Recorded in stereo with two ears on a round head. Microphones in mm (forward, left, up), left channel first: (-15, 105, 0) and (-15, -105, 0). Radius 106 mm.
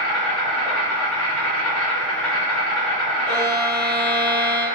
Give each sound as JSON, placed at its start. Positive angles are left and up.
{"t": 0.0, "sound": "an insect", "side_deg": 5, "distance_m": 1.7}
{"t": 3.2, "sound": "a violin", "side_deg": 55, "distance_m": 2.0}